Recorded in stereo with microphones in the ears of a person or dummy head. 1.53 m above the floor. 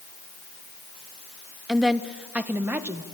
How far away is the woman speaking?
About 1.0 m.